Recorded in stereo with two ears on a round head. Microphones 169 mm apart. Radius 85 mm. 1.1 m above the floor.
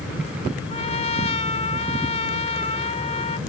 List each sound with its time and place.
0.7 s a trumpet: 40° left (ahead or behind)